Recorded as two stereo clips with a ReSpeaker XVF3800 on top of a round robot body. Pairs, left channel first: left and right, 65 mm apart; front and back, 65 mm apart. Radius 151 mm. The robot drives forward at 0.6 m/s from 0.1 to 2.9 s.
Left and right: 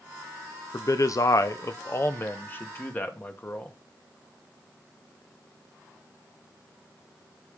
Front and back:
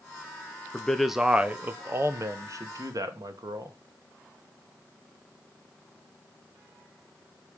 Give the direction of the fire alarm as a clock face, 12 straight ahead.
No fire alarm in this recording.